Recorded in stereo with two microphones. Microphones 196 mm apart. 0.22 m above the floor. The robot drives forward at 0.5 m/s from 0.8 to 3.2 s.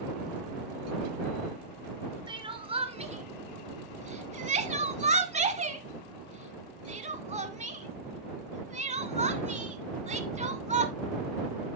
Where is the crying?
25° right (ahead or behind), 1.1 m; by 10.9 s 40° right (ahead or behind), 0.8 m.